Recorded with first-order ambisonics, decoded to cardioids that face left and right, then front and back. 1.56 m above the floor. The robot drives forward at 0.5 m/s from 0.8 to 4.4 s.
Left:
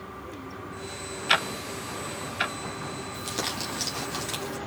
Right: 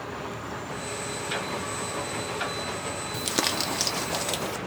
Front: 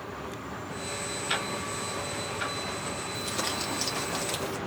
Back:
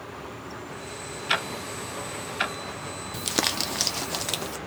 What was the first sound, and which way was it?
Ticking, 110° left.